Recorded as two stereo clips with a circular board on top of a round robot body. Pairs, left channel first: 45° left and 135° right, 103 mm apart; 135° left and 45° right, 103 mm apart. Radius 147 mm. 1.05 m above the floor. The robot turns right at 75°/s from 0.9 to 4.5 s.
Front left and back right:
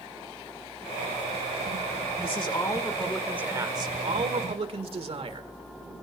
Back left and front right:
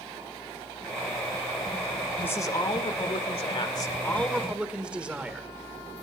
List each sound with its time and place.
2.2 s a man speaking: 65° left, 1.7 m; by 5.5 s 125° right, 1.7 m